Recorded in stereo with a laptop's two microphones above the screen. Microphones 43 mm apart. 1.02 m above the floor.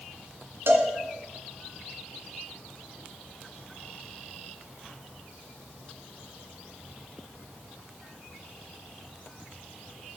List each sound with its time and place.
0.7 s a cowbell: 65° right (ahead or behind), 2 m